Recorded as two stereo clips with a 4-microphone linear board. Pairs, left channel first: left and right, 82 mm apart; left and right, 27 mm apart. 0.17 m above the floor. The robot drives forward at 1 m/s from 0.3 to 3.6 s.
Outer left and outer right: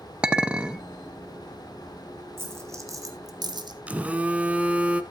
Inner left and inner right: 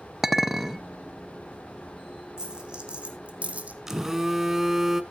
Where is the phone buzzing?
15° right (ahead or behind), 0.9 m.